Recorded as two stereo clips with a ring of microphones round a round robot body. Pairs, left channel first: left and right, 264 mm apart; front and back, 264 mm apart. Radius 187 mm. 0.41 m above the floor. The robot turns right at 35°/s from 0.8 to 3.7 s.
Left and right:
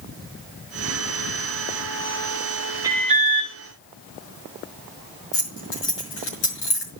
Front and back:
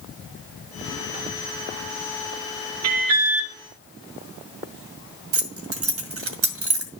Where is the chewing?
I don't hear chewing.